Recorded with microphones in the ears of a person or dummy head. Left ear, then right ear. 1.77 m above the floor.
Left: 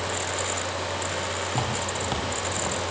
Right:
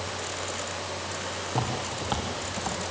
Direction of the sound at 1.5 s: 10° left (ahead or behind).